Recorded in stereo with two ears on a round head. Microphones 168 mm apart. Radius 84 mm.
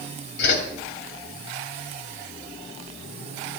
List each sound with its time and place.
0.4 s a whoosh: 65° left (ahead or behind), 2.5 m